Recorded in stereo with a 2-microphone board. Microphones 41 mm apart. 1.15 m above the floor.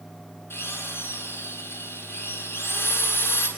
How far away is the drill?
About 9 m.